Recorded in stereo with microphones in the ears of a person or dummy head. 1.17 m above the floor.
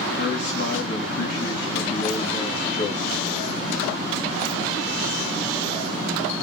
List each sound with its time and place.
0.2 s a man speaking: 55° left (ahead or behind), 1.8 m